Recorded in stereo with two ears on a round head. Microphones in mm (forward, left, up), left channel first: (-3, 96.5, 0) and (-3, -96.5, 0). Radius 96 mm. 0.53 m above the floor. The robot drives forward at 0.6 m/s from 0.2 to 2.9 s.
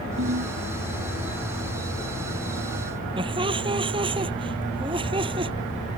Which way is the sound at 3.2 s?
25° right (ahead or behind).